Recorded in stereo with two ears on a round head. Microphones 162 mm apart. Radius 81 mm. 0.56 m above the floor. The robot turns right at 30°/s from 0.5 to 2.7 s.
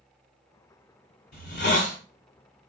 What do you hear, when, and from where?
1.3 s a hiss: 50° left (ahead or behind), 1.2 m; by 2.0 s 70° left (ahead or behind), 1.2 m